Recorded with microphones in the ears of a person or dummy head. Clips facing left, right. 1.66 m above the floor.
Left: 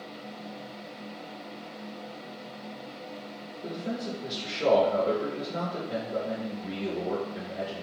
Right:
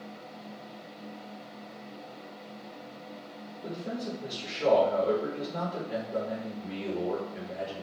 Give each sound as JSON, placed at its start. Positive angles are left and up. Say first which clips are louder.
{"t": 3.6, "sound": "a man speaking", "louder": "left 2 dB", "side_deg": 15, "distance_m": 0.9}